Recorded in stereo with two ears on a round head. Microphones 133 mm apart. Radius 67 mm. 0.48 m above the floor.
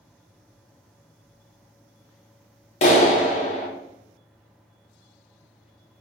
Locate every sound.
2.8 s a clap: 45° left (ahead or behind), 0.8 m